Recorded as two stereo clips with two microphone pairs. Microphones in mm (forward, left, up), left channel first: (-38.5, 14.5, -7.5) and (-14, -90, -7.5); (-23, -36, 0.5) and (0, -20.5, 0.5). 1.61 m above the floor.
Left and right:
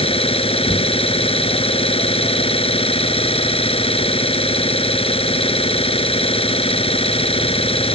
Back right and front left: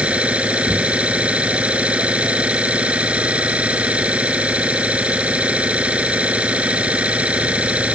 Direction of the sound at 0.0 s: 75° left.